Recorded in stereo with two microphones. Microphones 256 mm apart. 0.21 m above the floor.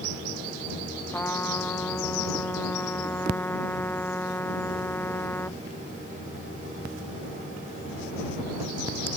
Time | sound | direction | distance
1.1 | a trumpet | 10° left (ahead or behind) | ?